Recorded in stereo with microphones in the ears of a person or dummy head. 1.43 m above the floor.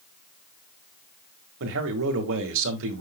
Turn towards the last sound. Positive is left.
turn(degrees=-75)  # may be behind; listen again after turning